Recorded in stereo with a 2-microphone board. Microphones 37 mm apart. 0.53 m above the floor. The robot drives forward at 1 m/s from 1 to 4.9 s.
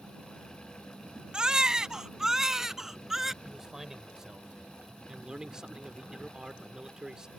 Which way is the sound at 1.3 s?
25° right (ahead or behind).